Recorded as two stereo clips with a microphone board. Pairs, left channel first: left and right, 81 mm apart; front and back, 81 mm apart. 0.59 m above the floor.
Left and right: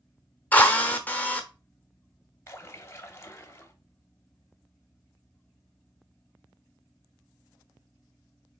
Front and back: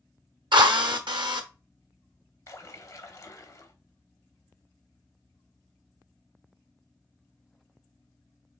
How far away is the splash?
About 0.7 m.